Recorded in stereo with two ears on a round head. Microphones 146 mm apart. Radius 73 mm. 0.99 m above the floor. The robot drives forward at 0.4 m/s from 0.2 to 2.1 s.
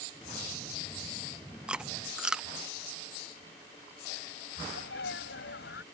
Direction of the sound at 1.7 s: 5° right (ahead or behind).